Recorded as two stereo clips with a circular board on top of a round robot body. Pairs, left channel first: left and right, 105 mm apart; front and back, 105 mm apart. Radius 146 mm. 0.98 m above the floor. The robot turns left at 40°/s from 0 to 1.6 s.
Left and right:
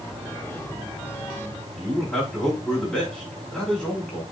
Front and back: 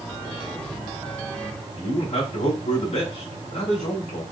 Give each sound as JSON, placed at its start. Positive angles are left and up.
{"t": 1.8, "sound": "a man speaking", "azimuth_deg": 10, "distance_m": 3.0}